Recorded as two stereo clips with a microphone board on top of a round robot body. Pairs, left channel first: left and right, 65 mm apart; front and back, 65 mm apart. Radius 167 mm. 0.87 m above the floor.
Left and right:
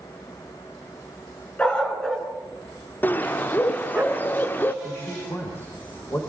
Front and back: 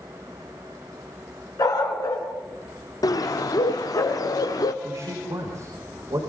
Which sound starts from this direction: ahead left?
A bird, at 3.0 s.